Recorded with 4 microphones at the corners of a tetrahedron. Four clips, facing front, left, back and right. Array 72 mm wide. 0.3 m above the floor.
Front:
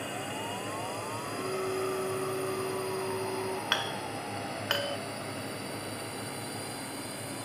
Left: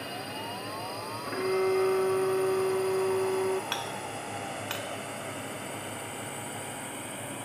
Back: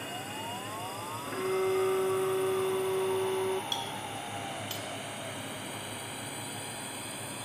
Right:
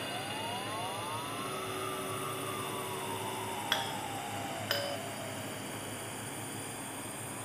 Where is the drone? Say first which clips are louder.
Left 1 dB, front 2 dB; 15° left; by 7.5 s 80° left.